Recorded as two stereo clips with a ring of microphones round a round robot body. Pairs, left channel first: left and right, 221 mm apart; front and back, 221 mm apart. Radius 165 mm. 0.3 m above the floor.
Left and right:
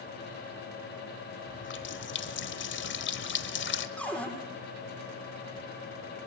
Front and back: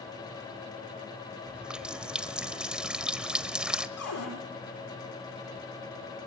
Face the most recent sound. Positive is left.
turn(degrees=5)